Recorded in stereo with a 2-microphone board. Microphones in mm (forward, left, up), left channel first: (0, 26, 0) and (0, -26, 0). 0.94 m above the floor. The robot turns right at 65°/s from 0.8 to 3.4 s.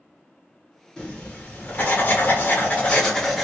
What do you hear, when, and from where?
1.0 s writing: 25° left, 1.1 m; by 3.4 s straight behind, 1.1 m